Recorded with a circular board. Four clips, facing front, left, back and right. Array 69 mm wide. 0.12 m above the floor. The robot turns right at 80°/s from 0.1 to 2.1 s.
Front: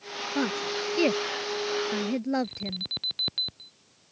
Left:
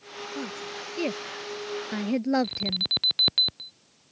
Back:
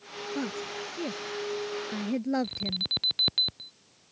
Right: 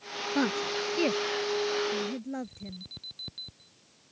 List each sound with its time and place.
0.3 s a woman speaking: 60° right; by 2.9 s 80° left
2.4 s an alarm: 100° left